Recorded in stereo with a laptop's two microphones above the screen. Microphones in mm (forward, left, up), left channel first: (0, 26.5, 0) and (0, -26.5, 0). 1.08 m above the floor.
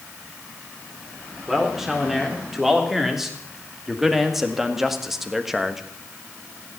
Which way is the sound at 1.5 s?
5° right (ahead or behind).